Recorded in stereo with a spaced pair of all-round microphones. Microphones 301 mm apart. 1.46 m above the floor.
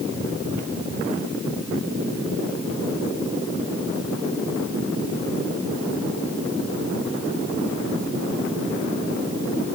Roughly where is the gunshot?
No gunshot in this recording.